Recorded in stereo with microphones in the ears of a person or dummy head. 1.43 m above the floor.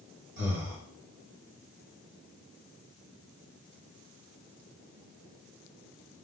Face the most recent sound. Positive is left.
turn(degrees=-60)  # may be behind; listen again after turning